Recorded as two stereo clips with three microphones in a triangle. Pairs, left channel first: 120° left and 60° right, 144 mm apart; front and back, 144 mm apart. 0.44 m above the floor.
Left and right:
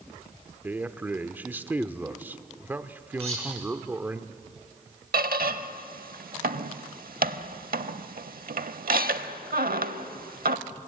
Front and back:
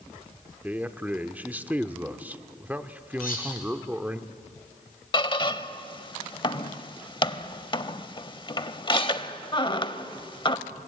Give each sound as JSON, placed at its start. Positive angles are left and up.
{"t": 0.6, "sound": "a man speaking", "azimuth_deg": -115, "distance_m": 0.8}
{"t": 3.2, "sound": "cutlery clinking", "azimuth_deg": -15, "distance_m": 6.5}
{"t": 5.1, "sound": "a squeak", "azimuth_deg": -60, "distance_m": 0.7}